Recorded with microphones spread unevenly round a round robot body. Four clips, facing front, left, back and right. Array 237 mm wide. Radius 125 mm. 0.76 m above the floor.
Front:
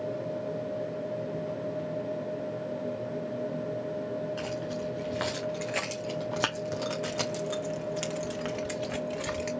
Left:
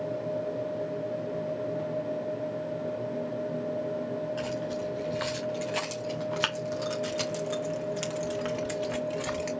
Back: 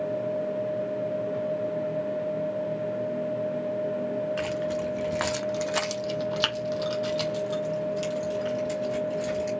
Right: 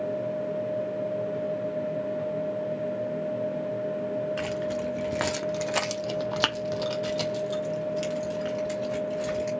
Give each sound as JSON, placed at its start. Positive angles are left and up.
{"t": 4.4, "sound": "keys jangling", "azimuth_deg": -115, "distance_m": 1.6}